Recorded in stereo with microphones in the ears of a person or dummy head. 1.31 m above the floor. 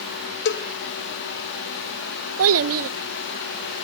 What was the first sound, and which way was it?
A cowbell, 55° left (ahead or behind).